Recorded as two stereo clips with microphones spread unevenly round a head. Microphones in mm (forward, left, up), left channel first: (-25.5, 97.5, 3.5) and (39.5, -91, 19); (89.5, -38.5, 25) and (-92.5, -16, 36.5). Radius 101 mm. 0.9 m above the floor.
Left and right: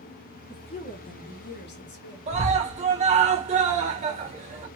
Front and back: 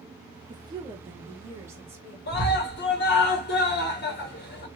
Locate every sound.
0.5 s a woman speaking: 130° left, 0.6 m; by 2.2 s 95° left, 1.2 m
2.3 s a scream: 15° right, 1.3 m